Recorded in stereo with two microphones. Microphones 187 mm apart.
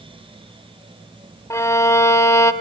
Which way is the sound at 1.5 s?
15° left (ahead or behind).